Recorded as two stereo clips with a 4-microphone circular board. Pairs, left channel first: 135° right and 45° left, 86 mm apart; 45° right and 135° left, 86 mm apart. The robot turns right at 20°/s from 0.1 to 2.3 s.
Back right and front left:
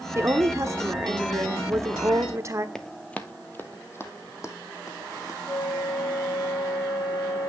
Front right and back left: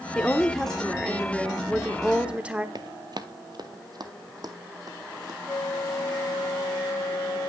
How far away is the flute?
About 2 m.